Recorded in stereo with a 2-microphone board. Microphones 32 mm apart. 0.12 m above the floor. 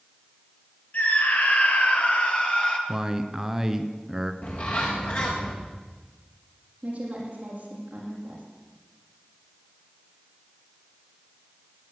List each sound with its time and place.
0.9 s a scream: 60° left (ahead or behind), 3 m; by 2.8 s 35° left (ahead or behind), 2.5 m
2.9 s a man speaking: 15° right (ahead or behind), 1.1 m
4.4 s a bird: 45° left (ahead or behind), 3.5 m
6.8 s a woman speaking: 40° right (ahead or behind), 5.5 m